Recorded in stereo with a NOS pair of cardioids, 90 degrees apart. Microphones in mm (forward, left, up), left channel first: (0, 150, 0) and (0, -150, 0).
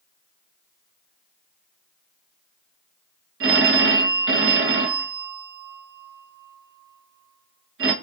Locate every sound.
3.4 s a phone ringing: 45° right, 0.9 m